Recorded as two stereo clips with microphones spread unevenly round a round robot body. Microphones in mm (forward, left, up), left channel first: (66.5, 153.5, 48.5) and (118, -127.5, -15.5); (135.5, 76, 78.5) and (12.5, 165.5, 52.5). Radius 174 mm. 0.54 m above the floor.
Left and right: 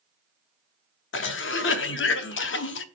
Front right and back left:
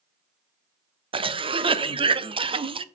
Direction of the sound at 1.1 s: 150° left.